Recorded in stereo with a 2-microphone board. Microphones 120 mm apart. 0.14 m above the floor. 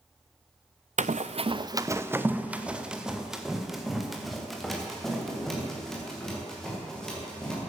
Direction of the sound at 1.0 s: 80° right.